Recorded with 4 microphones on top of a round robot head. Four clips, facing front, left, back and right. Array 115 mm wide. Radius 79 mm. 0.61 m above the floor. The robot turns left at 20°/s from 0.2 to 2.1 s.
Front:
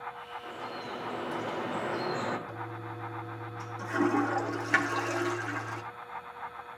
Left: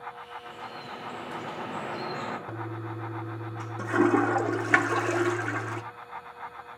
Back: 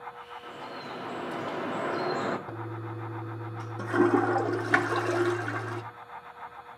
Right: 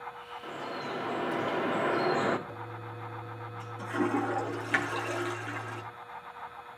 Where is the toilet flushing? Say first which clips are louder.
Left 5 dB, back 2 dB; 130° left, 0.9 m.